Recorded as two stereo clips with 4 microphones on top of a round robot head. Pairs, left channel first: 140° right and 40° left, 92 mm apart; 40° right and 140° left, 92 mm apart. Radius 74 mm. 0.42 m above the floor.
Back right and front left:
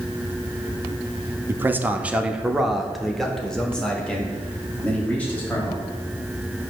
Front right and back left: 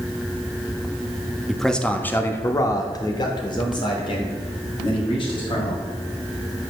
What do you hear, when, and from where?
1.5 s a man speaking: 50° left, 0.8 m; by 5.8 s 65° right, 2 m